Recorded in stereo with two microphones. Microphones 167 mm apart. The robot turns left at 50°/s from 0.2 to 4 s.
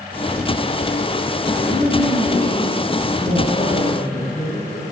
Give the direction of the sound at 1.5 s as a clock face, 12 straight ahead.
7 o'clock.